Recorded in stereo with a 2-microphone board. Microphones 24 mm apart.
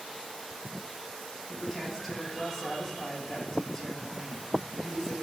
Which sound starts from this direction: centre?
A woman speaking, at 1.5 s.